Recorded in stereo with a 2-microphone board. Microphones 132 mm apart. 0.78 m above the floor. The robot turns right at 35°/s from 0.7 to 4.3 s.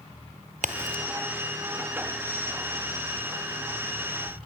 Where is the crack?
65° right (ahead or behind), 1.4 m; by 1.0 s 75° right (ahead or behind), 1.4 m.